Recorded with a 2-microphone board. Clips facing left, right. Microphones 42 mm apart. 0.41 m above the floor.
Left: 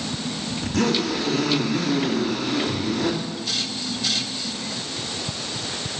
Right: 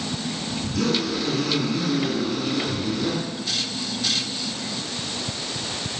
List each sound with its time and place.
0.6 s a zipper: 65° left (ahead or behind), 2 m